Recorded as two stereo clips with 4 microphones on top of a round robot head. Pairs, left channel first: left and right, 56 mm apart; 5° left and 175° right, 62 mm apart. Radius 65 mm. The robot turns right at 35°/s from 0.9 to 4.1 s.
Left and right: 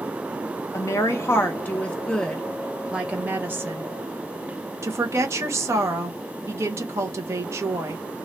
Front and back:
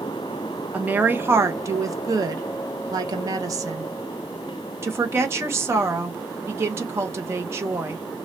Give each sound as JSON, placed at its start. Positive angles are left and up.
{"t": 0.7, "sound": "a woman speaking", "azimuth_deg": 120, "distance_m": 1.1}